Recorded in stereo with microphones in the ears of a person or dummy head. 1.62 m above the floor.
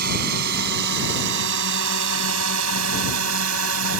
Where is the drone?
50° right (ahead or behind); by 4.0 s 85° right.